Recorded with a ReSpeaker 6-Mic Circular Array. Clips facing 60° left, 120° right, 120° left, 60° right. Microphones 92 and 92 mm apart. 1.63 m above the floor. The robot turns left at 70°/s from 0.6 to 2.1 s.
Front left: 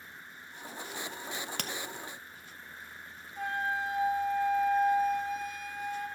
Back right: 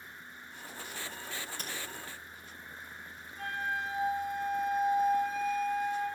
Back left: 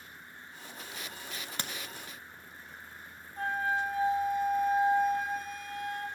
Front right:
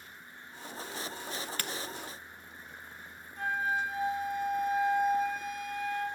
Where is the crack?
70° left, 0.6 m; by 1.7 s 45° left, 0.6 m.